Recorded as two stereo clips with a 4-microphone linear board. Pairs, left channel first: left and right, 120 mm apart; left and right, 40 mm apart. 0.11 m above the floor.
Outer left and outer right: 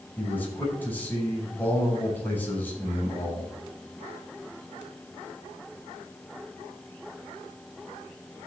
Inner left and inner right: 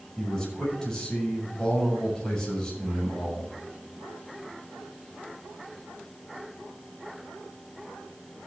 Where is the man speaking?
15° left (ahead or behind), 7 m.